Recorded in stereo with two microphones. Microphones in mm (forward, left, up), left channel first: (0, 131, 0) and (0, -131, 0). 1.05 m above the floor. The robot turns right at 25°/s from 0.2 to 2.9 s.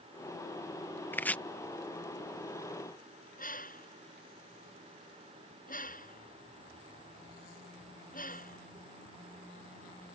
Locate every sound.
1.1 s chopping: 10° left (ahead or behind); by 1.4 s 5° left (ahead or behind)
3.4 s a bird: 30° left (ahead or behind)